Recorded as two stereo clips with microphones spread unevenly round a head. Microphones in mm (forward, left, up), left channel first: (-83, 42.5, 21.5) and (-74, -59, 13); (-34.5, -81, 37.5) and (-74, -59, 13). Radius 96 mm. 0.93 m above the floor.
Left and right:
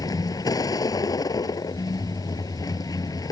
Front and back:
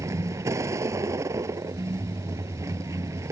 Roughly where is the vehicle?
Behind left.